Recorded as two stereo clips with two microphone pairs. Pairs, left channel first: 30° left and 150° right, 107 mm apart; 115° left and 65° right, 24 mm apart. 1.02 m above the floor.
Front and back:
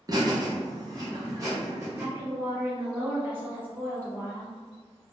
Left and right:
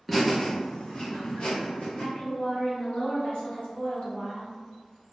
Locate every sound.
0.1 s laughter: 155° right, 0.7 m; by 2.0 s 150° left, 1.6 m
2.0 s a woman speaking: 140° left, 1.6 m